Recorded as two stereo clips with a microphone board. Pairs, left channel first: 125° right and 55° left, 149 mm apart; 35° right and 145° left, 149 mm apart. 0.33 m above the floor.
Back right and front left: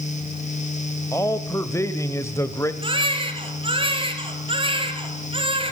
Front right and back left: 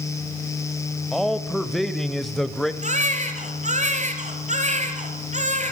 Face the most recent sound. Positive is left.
turn(degrees=110)